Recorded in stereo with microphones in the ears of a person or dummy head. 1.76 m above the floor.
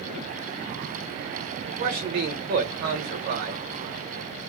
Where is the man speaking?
50° right (ahead or behind), 1.1 m.